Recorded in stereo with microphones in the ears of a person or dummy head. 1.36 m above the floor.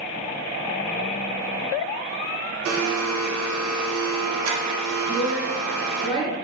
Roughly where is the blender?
Right.